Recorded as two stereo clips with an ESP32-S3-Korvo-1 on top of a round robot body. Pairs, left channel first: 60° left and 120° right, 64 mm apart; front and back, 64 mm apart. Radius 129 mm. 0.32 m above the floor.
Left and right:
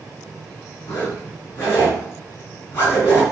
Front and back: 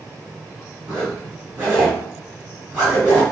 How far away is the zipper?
About 3.5 m.